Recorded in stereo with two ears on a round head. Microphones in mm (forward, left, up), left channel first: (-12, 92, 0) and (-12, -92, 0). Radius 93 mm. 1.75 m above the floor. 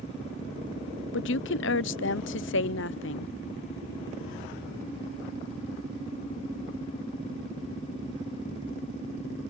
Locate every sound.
1.1 s a woman speaking: 60° left (ahead or behind)